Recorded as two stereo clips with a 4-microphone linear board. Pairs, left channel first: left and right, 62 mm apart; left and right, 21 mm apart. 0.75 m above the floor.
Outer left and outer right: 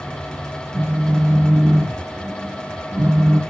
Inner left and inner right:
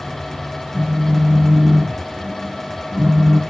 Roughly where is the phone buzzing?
Right.